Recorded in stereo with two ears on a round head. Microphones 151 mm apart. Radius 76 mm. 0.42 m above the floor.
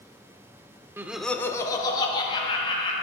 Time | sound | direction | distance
1.0 | laughter | 15° right (ahead or behind) | 0.7 m